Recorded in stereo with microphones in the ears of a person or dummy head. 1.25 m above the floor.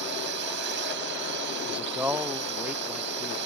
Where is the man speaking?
10° right (ahead or behind).